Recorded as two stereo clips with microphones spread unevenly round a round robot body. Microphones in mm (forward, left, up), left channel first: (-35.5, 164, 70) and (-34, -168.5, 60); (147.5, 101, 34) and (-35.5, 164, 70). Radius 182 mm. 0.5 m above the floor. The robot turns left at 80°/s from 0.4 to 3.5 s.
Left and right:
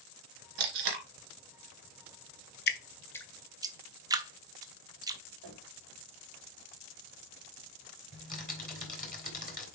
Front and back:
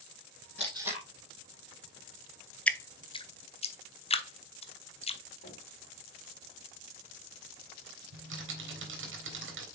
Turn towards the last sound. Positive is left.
turn(degrees=155)